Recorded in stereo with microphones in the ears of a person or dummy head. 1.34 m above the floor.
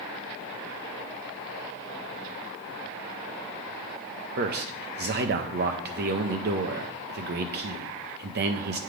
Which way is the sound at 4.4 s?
55° right (ahead or behind).